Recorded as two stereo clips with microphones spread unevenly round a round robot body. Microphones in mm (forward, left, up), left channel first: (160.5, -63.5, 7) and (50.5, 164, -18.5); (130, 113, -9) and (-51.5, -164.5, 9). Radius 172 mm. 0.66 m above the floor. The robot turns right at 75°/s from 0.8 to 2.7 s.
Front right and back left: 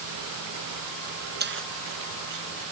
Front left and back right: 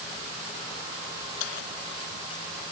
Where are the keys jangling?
65° left; by 2.5 s 145° left.